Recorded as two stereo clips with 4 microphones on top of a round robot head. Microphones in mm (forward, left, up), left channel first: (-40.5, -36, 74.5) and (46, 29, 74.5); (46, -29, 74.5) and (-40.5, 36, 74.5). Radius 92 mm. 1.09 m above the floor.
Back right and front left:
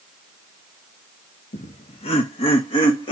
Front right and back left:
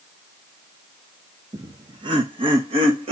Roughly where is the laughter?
Behind.